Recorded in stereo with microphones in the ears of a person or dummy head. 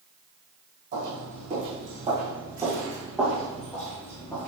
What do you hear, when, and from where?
0.9 s footsteps: 40° right (ahead or behind), 2 m; by 4.5 s 10° left (ahead or behind), 2 m